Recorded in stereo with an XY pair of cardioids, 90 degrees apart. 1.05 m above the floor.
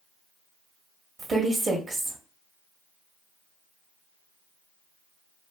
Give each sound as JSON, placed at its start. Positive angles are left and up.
{"t": 1.2, "sound": "a woman speaking", "azimuth_deg": -55, "distance_m": 1.0}